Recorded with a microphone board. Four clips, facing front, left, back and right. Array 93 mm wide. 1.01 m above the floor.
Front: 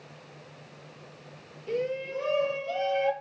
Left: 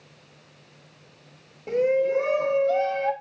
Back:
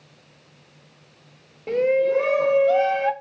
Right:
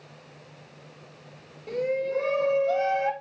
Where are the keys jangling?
I don't hear keys jangling.